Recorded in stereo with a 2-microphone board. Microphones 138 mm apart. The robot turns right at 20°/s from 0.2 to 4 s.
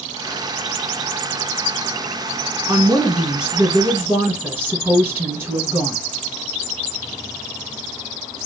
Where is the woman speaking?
5° right (ahead or behind), 1.9 m; by 6.0 s 20° right (ahead or behind), 1.9 m.